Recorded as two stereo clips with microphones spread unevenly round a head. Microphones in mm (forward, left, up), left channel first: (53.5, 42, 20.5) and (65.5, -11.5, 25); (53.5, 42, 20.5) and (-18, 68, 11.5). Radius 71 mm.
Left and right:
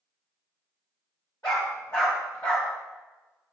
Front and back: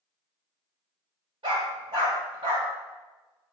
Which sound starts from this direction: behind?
A dog barking, at 1.4 s.